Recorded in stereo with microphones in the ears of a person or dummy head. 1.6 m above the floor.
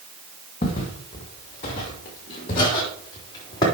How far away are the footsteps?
About 2.5 m.